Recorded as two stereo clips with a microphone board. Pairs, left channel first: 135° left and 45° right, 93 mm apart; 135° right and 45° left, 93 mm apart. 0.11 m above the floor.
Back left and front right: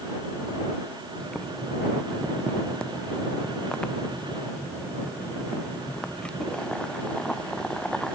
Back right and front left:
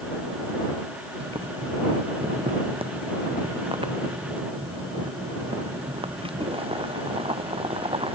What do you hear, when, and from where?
1.2 s boiling: 55° left